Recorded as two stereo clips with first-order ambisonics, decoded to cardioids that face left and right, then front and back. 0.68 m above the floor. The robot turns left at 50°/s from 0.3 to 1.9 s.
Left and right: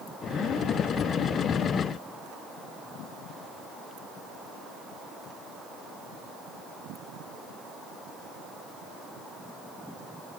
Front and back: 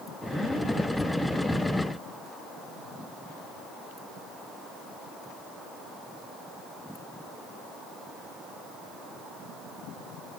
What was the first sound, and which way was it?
Only background noise.